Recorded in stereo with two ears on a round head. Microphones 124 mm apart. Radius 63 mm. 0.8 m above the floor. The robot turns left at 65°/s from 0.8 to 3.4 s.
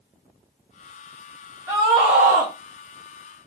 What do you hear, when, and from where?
1.7 s a scream: 20° right, 1.0 m; by 2.5 s 75° right, 1.0 m